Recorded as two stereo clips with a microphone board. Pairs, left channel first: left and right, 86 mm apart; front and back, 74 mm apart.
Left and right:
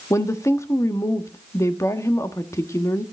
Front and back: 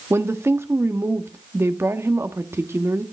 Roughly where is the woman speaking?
Behind left.